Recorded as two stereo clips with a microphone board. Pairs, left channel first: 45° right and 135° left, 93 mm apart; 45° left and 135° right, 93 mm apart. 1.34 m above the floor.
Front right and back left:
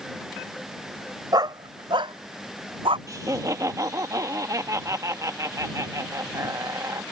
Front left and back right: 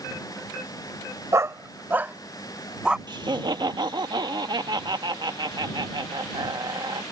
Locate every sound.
1.3 s a dog barking: 175° left; by 3.0 s 145° left
3.1 s laughter: 170° right